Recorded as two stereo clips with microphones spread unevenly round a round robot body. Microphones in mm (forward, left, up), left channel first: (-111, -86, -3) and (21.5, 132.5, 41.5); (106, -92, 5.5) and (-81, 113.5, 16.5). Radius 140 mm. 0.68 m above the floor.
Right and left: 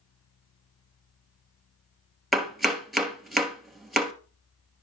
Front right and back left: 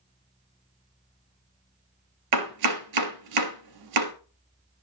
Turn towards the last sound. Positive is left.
turn(degrees=145)